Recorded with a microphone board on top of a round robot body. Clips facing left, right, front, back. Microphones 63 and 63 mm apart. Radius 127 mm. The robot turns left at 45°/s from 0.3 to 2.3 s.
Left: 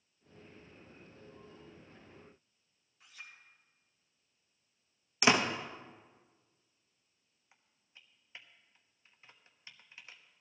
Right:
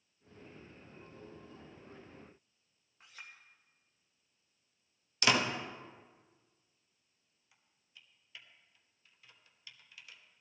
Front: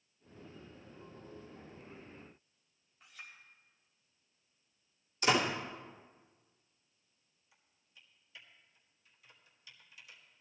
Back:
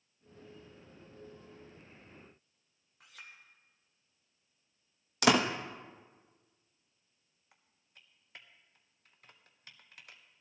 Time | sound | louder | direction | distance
3.0 | a clink | even, even | 145° right | 2.5 m
5.2 | a door slam | left 2 dB, back 4 dB | 160° left | 1.1 m
7.5 | typing on a keyboard | left 1 dB, back 1 dB | 145° left | 1.3 m